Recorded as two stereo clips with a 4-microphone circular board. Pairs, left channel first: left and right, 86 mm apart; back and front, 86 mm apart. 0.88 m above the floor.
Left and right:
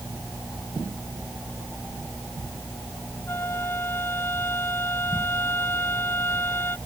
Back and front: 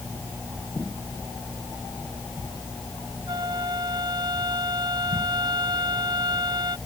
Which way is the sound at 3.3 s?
30° left.